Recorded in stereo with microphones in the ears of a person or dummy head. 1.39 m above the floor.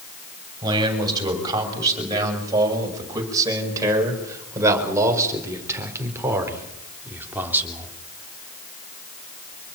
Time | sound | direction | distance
0.6 | a man speaking | 25° right (ahead or behind) | 7.5 m